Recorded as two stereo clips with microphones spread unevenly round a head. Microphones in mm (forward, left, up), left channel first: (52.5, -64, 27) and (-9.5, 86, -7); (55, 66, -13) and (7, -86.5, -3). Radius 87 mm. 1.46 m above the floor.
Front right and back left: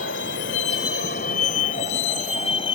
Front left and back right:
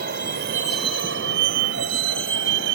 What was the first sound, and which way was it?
A vehicle, 85° right.